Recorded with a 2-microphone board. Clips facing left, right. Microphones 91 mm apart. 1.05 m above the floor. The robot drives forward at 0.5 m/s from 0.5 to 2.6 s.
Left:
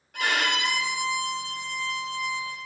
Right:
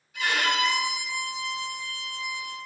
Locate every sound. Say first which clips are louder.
0.1 s a violin: right 1 dB; 70° left (ahead or behind), 1.5 m; by 2.6 s 50° left (ahead or behind), 1.8 m